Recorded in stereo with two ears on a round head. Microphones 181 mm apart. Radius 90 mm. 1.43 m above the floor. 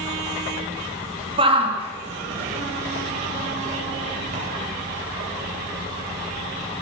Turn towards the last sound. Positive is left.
turn(degrees=-35)  # may be behind; listen again after turning